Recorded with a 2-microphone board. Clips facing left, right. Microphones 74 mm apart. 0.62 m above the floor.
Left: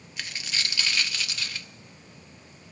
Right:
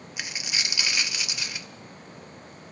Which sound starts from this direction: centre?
A dropped coin, at 0.2 s.